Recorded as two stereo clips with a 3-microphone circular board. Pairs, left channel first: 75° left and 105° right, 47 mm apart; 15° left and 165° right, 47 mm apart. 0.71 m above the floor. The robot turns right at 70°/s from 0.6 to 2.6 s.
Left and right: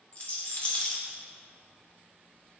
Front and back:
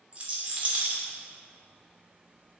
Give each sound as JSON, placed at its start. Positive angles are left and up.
{"t": 0.1, "sound": "a rattle", "azimuth_deg": 135, "distance_m": 0.7}